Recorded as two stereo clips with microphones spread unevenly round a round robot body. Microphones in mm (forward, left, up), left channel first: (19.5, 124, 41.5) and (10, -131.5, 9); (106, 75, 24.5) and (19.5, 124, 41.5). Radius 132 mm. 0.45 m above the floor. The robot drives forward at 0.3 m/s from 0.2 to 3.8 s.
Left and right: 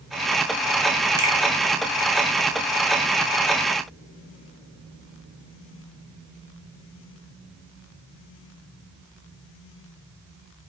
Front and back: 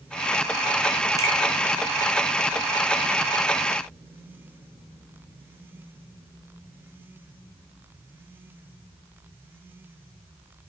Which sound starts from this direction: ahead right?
A finger snap, at 1.2 s.